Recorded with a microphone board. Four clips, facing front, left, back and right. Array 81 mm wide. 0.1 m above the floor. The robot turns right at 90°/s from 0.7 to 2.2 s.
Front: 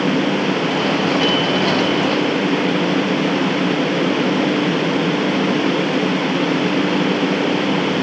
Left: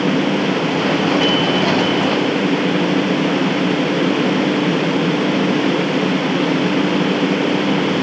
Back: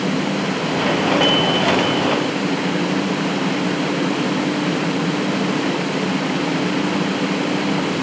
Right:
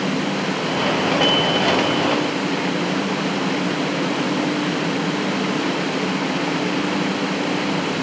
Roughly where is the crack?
I don't hear a crack.